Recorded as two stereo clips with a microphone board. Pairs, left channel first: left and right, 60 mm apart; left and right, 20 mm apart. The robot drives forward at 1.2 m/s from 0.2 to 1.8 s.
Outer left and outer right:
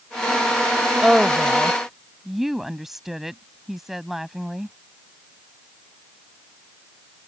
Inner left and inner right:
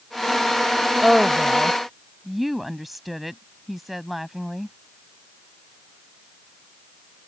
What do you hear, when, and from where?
1.0 s a woman speaking: 10° right (ahead or behind); by 4.8 s 5° right (ahead or behind)